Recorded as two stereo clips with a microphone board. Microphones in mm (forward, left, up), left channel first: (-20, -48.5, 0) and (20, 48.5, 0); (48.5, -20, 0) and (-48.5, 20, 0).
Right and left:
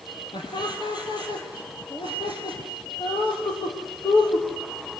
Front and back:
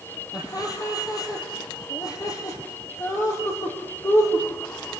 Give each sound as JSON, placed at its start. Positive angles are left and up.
{"t": 0.3, "sound": "laughter", "azimuth_deg": -70, "distance_m": 5.5}